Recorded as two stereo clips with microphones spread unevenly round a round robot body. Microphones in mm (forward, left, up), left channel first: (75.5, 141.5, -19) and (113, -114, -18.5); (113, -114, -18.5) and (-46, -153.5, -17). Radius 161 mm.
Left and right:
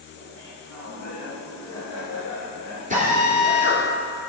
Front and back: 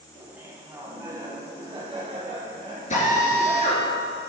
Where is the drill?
25° right, 3 m.